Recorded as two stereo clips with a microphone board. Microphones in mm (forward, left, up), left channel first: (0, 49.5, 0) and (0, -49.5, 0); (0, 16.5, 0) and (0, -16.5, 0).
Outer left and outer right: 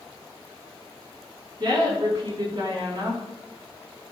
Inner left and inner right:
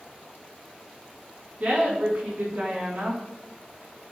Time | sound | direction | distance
1.6 | a woman speaking | 45° right (ahead or behind) | 3.5 m